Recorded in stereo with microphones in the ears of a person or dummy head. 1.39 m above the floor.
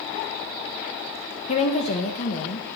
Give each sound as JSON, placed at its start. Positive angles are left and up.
{"t": 1.5, "sound": "a woman speaking", "side_deg": 40, "distance_m": 0.8}